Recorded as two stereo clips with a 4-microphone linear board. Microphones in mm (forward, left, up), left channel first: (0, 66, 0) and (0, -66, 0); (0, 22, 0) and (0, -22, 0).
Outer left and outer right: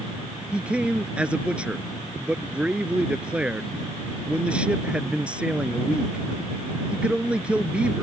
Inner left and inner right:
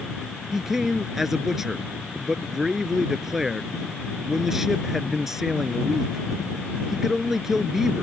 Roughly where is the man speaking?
Centre.